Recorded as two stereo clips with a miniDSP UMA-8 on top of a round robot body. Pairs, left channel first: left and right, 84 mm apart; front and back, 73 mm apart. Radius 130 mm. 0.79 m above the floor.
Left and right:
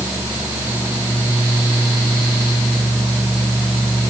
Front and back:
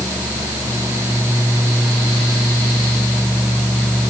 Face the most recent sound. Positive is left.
No sound to turn to.